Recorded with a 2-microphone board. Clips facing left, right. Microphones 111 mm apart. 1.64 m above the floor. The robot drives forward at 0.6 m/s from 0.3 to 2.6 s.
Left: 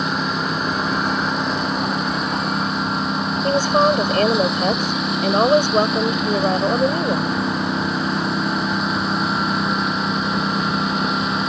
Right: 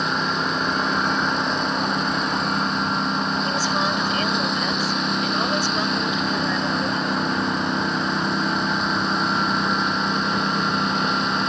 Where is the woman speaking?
50° left (ahead or behind).